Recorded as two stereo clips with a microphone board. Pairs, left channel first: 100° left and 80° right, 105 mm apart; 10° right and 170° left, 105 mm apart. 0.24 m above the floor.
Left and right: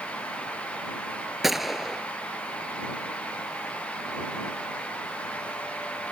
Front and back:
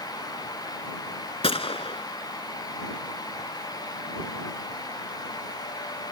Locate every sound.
1.4 s a gunshot: 10° left